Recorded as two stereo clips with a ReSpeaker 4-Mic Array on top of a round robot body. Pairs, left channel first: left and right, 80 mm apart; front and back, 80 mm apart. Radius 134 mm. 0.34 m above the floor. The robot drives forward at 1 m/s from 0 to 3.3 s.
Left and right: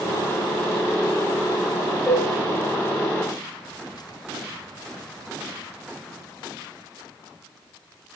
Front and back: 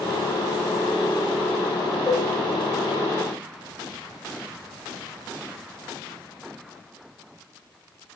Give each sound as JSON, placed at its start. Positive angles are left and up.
{"t": 2.1, "sound": "dishes clattering", "azimuth_deg": 10, "distance_m": 2.5}